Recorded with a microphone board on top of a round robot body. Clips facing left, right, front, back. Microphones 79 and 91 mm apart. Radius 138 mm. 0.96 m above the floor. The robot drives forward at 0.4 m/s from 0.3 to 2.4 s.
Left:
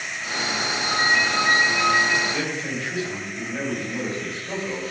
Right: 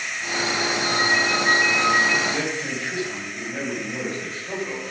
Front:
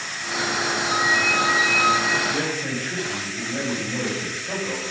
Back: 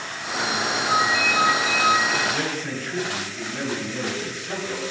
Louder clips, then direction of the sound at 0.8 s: Left 2 dB, back 1 dB; 30° right.